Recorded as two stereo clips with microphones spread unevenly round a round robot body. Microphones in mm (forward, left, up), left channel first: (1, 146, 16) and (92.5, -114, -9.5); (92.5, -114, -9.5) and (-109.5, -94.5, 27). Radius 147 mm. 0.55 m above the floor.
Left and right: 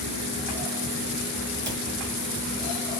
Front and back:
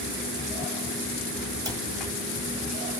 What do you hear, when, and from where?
1.6 s a cupboard door: 110° right, 1.4 m